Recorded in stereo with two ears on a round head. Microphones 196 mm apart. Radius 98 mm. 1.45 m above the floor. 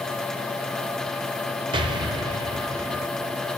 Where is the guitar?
No guitar in this recording.